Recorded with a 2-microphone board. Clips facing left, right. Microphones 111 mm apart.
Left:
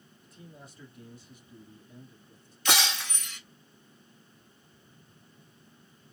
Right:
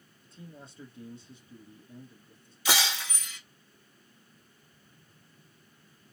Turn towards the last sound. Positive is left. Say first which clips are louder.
# left 1 dB
turn(degrees=-5)  # may be behind; listen again after turning